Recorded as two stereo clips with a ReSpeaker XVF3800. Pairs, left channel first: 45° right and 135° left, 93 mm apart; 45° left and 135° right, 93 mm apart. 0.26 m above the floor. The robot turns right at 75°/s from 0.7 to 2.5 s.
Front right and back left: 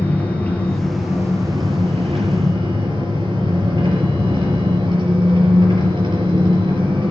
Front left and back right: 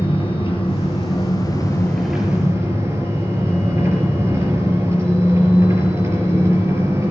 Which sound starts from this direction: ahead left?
An engine running, at 0.0 s.